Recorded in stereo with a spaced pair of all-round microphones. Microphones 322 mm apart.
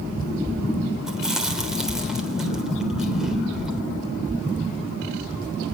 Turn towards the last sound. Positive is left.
turn(degrees=0)  # may be behind; listen again after turning